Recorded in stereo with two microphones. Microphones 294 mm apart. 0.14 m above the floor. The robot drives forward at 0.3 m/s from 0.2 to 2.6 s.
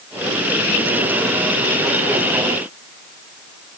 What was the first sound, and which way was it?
Only background noise.